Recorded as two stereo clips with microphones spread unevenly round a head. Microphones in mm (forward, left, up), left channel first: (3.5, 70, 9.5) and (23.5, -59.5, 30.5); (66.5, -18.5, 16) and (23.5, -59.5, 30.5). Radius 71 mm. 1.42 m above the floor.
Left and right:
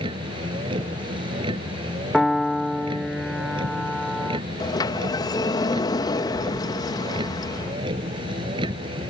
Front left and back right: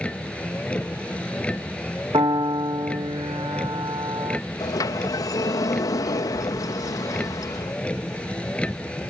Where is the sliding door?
40° left.